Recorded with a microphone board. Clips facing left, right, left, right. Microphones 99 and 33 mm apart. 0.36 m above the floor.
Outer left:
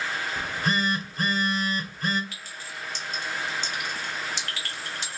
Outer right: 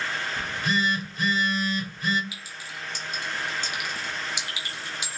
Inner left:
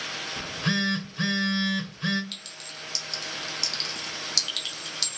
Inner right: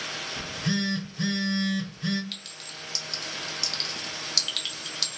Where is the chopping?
No chopping in this recording.